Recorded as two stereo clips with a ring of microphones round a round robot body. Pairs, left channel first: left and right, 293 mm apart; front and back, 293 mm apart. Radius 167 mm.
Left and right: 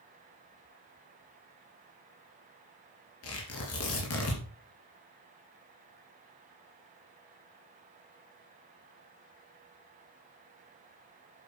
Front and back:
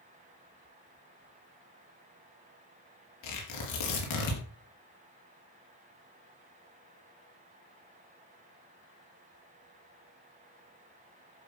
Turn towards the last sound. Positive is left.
turn(degrees=40)